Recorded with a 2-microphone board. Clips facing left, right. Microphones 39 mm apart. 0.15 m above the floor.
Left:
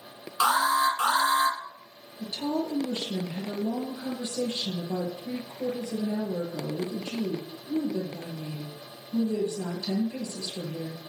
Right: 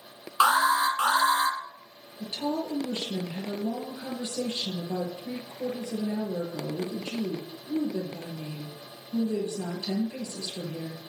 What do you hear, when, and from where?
0.4 s an alarm: 30° right (ahead or behind), 2 m
2.2 s a woman speaking: 35° right (ahead or behind), 3.5 m